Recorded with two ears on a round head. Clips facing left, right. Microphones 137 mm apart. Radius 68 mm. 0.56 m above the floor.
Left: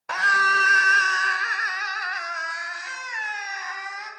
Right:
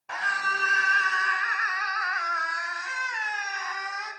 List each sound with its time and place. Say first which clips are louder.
0.1 s a scream: left 7 dB; 70° left (ahead or behind), 2.5 m; by 4.1 s 10° left (ahead or behind), 5 m